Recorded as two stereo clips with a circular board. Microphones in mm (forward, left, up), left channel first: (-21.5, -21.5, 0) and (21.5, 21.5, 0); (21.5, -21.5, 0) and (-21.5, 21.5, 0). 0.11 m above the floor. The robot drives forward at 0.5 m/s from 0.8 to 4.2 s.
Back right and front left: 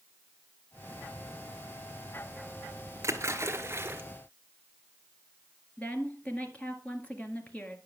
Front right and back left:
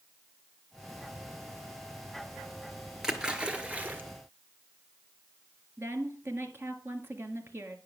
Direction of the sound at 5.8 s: 165° left.